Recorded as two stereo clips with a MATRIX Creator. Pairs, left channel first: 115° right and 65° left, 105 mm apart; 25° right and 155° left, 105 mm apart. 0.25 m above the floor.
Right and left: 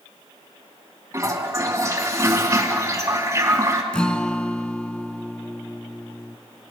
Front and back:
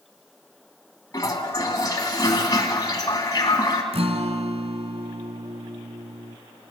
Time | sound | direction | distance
1.1 | a toilet flushing | 20° left | 2.5 m
3.9 | a guitar | 165° left | 1.3 m